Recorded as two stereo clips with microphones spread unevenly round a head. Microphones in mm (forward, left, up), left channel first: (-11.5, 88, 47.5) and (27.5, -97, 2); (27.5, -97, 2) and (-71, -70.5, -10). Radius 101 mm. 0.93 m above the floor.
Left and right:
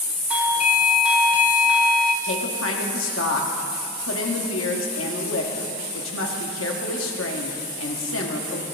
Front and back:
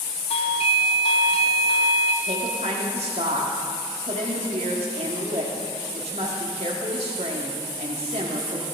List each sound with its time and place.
0.3 s a doorbell: 5° right, 1.0 m
2.2 s a woman speaking: 120° left, 1.7 m